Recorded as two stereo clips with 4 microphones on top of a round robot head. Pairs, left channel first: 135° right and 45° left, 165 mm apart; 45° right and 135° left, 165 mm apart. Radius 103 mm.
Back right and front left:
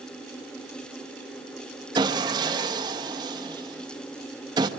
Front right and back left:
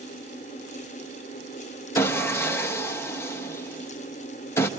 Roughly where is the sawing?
Ahead.